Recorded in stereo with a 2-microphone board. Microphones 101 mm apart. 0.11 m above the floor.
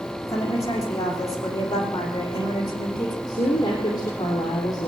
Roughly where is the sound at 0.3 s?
Left.